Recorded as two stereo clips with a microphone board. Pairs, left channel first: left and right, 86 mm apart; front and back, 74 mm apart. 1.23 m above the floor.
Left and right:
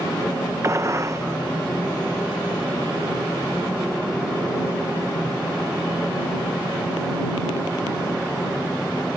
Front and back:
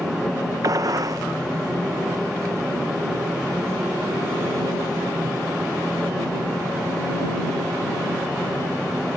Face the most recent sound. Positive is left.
turn(degrees=-145)